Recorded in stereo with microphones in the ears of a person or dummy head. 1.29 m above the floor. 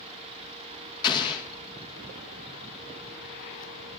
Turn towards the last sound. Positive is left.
turn(degrees=25)  # may be behind; listen again after turning